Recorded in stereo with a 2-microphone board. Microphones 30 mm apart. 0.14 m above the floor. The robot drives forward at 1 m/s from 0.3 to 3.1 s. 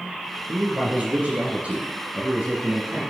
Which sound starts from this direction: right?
A man speaking, at 0.5 s.